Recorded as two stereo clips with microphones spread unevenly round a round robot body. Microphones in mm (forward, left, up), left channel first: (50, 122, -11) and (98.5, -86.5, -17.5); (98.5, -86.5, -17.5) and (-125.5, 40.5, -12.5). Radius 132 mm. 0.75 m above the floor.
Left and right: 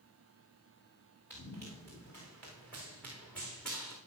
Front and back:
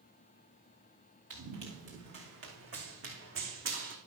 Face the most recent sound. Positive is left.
turn(degrees=-170)